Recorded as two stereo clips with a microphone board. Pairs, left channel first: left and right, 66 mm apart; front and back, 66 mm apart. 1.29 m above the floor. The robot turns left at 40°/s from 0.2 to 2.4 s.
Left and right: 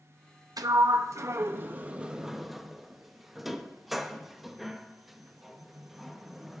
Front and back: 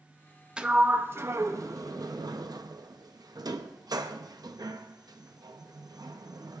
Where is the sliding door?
105° right, 0.6 m; by 6.6 s 175° right, 0.6 m.